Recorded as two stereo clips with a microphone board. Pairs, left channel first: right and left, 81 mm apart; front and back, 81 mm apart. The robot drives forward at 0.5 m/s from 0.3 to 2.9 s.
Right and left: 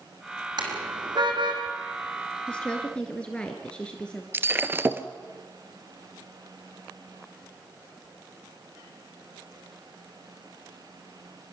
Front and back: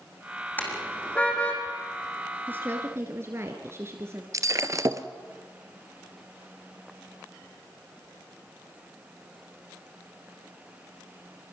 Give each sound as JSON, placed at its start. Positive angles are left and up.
{"t": 0.6, "sound": "a car horn", "azimuth_deg": 65, "distance_m": 3.0}
{"t": 2.5, "sound": "a woman speaking", "azimuth_deg": -155, "distance_m": 1.4}
{"t": 4.3, "sound": "breaking glass", "azimuth_deg": 145, "distance_m": 0.8}